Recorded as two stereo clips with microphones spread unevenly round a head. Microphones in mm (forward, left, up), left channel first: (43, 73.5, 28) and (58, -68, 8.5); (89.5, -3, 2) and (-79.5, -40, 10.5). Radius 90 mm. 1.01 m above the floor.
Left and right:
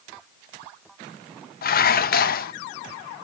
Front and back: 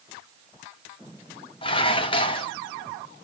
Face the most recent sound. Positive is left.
turn(degrees=75)